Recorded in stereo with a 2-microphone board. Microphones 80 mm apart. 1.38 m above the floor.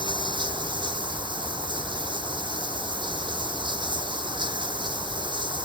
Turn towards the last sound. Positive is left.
turn(degrees=-75)  # may be behind; listen again after turning